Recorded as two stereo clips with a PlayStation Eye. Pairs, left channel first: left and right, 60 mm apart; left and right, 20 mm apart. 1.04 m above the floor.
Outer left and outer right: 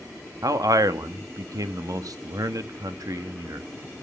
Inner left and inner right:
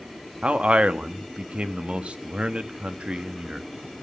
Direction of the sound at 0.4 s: 85° right.